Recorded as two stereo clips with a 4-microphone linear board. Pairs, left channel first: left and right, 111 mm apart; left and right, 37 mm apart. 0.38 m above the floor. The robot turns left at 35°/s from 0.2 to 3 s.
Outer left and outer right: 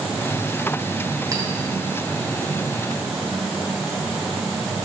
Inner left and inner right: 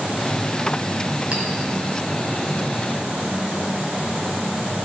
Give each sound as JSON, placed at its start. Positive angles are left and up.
{"t": 1.3, "sound": "a clink", "side_deg": -30, "distance_m": 1.9}